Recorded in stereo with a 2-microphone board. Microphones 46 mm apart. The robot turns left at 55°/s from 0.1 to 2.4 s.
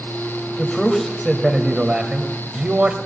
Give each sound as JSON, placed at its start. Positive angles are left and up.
{"t": 0.6, "sound": "a man speaking", "side_deg": 15, "distance_m": 1.6}